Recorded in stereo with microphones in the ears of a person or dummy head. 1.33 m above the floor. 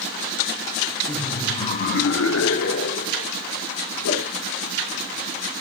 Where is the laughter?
10° left (ahead or behind), 1.4 m; by 3.3 s 45° left (ahead or behind), 1.5 m.